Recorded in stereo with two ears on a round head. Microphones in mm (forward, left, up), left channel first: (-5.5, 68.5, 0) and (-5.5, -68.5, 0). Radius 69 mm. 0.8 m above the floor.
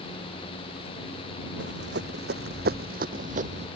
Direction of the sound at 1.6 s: 80° right.